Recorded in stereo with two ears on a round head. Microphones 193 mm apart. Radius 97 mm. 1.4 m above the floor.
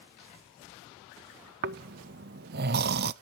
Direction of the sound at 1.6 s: 50° right (ahead or behind).